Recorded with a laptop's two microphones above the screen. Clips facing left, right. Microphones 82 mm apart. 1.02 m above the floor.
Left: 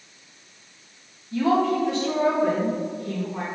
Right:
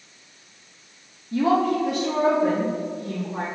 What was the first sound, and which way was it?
A woman speaking, 45° right (ahead or behind).